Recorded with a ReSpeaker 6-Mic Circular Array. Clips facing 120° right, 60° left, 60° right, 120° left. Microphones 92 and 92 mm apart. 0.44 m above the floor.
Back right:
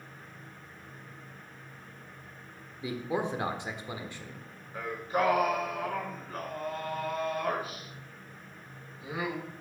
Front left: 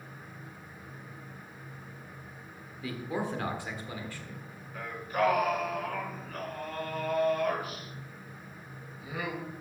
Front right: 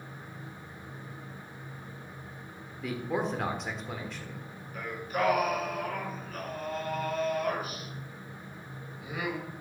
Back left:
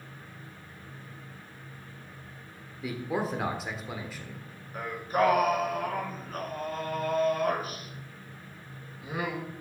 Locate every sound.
2.8 s a man speaking: 155° right, 1.2 m
4.7 s singing: 175° left, 3.5 m